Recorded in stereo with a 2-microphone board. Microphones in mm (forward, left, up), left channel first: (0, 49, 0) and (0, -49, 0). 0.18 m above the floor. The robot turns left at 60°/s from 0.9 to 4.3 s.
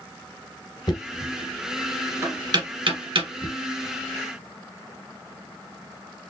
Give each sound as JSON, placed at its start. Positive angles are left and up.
{"t": 0.9, "sound": "knocking", "side_deg": 45, "distance_m": 2.0}